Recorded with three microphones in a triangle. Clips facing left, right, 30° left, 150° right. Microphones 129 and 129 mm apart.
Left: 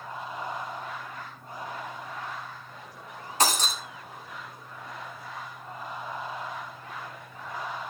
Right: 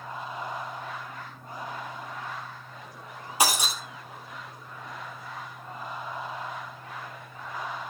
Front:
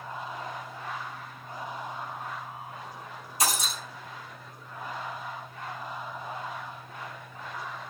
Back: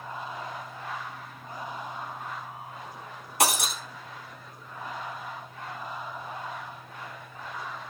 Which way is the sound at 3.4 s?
170° right.